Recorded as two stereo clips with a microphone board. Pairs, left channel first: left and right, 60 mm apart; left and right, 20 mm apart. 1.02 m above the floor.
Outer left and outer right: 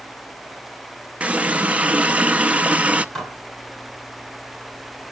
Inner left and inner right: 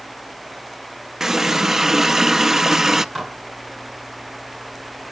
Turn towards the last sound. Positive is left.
turn(degrees=10)  # may be behind; listen again after turning